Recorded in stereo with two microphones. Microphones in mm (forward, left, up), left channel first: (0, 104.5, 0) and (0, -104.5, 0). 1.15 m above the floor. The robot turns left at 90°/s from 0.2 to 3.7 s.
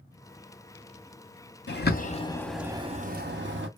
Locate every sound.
1.7 s a bird: 60° left (ahead or behind), 0.7 m; by 3.7 s 60° right (ahead or behind), 0.7 m